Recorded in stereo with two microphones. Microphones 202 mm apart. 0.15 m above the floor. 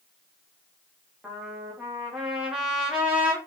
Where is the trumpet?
5° right (ahead or behind), 4.5 m.